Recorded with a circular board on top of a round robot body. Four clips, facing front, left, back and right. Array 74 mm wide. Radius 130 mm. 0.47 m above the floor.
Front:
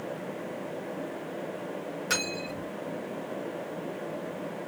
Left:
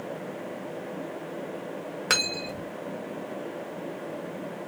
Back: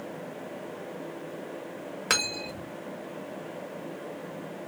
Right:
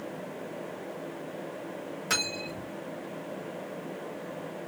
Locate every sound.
2.1 s cutlery clinking: 135° left, 1.3 m